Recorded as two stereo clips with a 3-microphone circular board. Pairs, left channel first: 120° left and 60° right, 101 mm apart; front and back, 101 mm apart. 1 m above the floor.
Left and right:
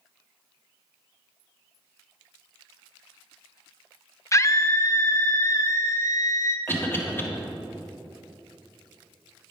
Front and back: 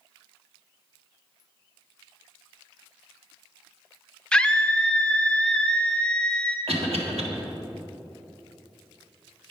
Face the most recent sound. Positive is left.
turn(degrees=-175)